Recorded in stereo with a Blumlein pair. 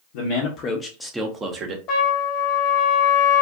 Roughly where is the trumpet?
Ahead left.